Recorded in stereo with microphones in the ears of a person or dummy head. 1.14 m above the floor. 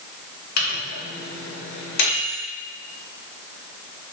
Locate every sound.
0.6 s a microwave: 65° left (ahead or behind), 1.0 m